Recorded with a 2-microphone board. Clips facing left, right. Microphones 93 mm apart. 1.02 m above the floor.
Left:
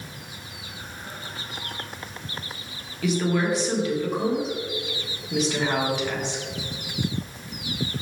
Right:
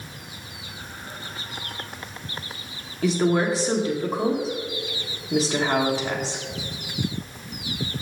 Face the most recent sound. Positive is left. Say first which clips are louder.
# right 3 dB
turn(degrees=-35)  # may be behind; listen again after turning